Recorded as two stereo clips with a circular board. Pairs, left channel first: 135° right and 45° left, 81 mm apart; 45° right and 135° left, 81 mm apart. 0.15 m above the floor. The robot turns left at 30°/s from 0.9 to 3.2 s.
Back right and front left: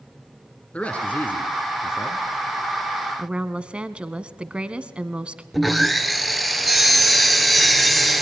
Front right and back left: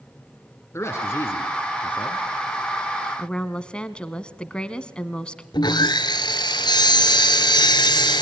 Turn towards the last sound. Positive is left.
turn(degrees=-45)